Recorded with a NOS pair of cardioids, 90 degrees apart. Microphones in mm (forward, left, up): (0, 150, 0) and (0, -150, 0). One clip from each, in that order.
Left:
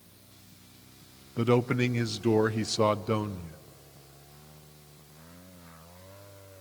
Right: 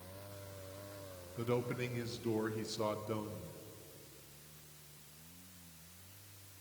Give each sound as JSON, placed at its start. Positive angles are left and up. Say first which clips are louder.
{"t": 1.4, "sound": "a man speaking", "louder": "left 11 dB", "azimuth_deg": 55, "distance_m": 0.6}